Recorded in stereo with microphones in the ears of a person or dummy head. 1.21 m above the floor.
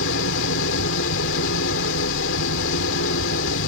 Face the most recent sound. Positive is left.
turn(degrees=70)  # may be behind; listen again after turning